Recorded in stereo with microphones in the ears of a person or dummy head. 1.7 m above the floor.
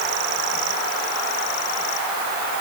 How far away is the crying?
No crying in this recording.